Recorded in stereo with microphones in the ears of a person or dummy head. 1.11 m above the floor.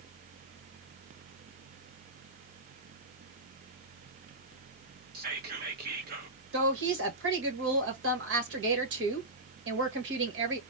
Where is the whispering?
50° right (ahead or behind), 0.9 m.